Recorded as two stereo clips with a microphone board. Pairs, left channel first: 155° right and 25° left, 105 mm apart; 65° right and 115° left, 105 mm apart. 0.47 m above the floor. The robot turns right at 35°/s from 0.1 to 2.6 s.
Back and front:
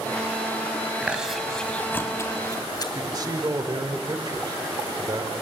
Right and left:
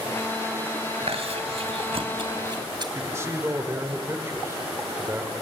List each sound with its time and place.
1.0 s chewing: 100° left, 2 m; by 2.9 s 155° left, 2 m
3.0 s a man speaking: 55° left, 1.7 m